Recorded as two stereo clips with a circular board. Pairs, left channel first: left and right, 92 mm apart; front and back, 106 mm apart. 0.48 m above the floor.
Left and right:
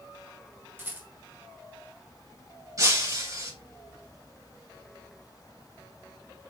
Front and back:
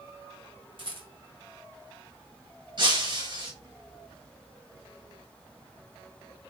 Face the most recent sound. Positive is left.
turn(degrees=-140)